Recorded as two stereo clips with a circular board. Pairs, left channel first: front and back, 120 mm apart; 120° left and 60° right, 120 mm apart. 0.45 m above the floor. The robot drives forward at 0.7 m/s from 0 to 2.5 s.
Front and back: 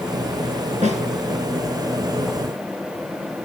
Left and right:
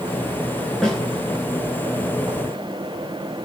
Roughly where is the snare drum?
Behind right.